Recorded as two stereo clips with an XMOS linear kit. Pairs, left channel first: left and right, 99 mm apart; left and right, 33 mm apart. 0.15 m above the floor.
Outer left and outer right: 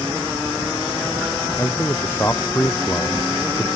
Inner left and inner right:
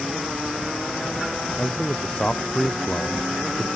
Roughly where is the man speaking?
Left.